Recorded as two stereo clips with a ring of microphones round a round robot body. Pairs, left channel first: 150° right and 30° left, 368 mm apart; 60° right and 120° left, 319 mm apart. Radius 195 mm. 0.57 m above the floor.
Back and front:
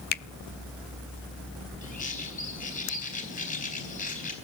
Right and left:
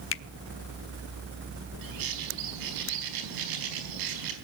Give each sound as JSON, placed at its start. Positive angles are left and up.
{"t": 0.1, "sound": "a finger snap", "azimuth_deg": -95, "distance_m": 0.5}
{"t": 1.8, "sound": "a bird", "azimuth_deg": 140, "distance_m": 4.0}